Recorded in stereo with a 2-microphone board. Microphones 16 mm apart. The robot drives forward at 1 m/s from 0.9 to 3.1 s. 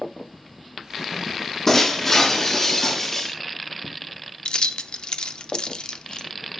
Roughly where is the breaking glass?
Left.